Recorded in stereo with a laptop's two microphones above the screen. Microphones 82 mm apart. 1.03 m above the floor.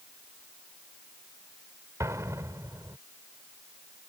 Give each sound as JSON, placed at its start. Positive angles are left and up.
{"t": 2.0, "sound": "an explosion", "side_deg": -40}